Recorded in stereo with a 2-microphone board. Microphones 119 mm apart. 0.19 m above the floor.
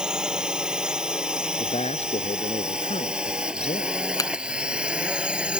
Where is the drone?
5° right (ahead or behind); by 5.6 s 10° right (ahead or behind).